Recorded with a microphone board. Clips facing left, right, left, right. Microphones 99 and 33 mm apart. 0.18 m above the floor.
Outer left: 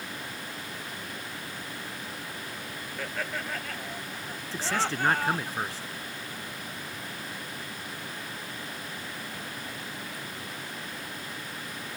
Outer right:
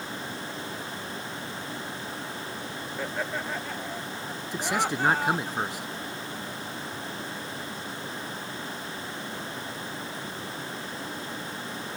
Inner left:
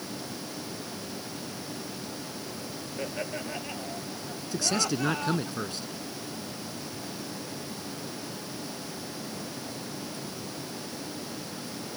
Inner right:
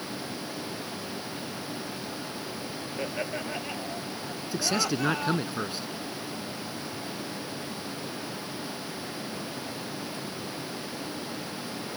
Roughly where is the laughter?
Centre.